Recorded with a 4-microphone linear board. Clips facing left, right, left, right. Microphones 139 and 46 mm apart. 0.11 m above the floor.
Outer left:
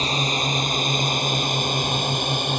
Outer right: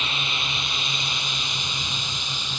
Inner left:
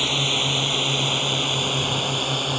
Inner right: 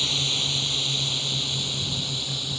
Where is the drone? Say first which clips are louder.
Outer left 8 dB, inner left 5 dB; 35° left (ahead or behind); by 2.6 s 55° left (ahead or behind).